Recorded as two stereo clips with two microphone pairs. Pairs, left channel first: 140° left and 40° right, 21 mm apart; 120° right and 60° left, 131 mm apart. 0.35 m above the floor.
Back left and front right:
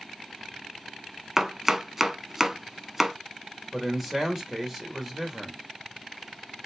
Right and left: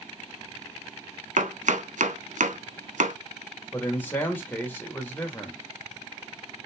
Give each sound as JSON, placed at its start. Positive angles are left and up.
{"t": 1.4, "sound": "chopping", "azimuth_deg": 45, "distance_m": 0.7}
{"t": 3.7, "sound": "a man speaking", "azimuth_deg": -85, "distance_m": 1.5}